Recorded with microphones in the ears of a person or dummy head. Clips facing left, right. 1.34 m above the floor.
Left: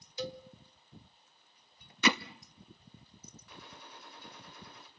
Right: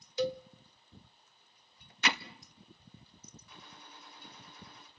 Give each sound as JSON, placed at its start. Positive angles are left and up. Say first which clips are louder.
{"t": 0.2, "sound": "a cowbell", "louder": "right 7 dB", "side_deg": -55, "distance_m": 1.3}
{"t": 2.0, "sound": "hammering", "louder": "left 6 dB", "side_deg": 80, "distance_m": 1.0}
{"t": 3.5, "sound": "a gunshot", "louder": "left 5 dB", "side_deg": 55, "distance_m": 2.0}